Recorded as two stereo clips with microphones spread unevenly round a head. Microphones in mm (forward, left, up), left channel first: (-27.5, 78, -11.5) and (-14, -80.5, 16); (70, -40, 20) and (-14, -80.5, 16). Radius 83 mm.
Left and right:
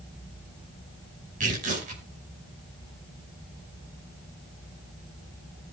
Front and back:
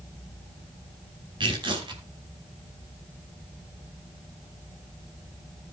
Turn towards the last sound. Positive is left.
turn(degrees=-125)